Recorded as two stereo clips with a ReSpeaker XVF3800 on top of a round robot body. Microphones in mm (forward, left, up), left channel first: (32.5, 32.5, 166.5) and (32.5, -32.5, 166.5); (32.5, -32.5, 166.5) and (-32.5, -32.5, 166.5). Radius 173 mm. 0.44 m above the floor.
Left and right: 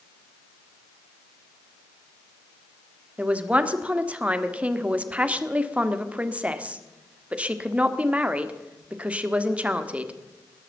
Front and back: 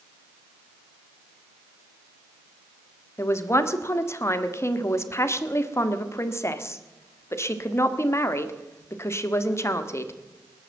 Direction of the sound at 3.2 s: 25° right.